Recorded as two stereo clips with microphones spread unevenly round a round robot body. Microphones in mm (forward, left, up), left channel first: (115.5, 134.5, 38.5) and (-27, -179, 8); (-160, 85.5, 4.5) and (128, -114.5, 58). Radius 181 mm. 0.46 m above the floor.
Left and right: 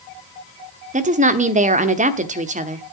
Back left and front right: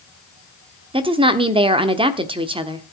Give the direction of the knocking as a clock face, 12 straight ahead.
I don't hear knocking.